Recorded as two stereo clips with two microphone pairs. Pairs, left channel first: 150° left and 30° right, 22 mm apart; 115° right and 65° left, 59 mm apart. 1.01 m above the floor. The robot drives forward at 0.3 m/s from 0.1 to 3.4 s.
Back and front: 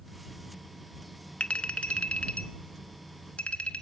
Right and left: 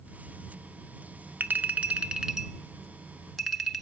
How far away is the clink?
About 0.5 m.